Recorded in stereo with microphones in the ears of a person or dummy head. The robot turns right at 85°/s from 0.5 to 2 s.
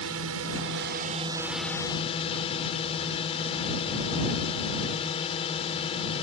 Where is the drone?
95° right; by 6.2 s 35° left.